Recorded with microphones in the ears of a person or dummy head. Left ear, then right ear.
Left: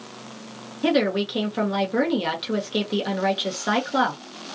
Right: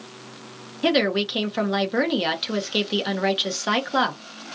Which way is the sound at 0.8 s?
15° right (ahead or behind).